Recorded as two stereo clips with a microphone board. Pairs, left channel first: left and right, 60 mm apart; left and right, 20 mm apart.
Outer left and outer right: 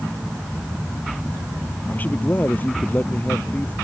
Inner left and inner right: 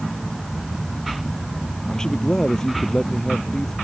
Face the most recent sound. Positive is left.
turn(degrees=30)  # may be behind; listen again after turning